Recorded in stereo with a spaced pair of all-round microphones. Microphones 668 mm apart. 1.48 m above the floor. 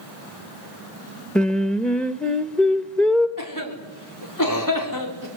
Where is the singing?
Centre (ahead or behind), 1.2 m.